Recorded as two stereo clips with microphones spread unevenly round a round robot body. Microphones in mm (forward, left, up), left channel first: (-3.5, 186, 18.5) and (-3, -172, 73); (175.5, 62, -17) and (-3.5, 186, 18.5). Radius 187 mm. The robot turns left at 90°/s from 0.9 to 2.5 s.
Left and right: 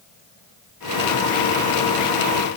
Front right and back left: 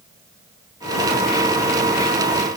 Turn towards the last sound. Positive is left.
No sound to turn to.